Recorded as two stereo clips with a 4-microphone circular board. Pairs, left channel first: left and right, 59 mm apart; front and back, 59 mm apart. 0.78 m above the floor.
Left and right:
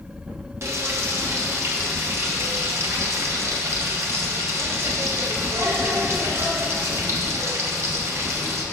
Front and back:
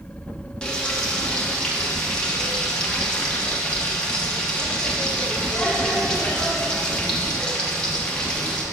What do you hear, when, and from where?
0.6 s frying: 70° right, 1.2 m